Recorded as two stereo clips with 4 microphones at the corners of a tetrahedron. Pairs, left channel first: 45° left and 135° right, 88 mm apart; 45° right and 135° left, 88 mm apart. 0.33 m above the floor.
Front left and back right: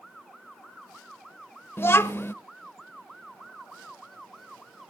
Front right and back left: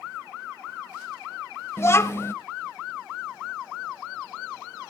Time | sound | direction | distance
1.8 | a child speaking | 5° right | 0.6 m